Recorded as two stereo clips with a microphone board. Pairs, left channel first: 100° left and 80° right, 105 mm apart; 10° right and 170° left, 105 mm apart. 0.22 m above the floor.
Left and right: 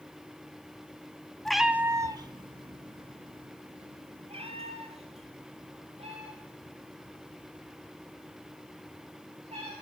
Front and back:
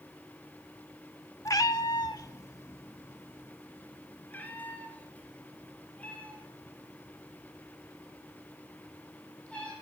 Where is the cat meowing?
20° left, 0.6 m; by 9.7 s 90° right, 6 m.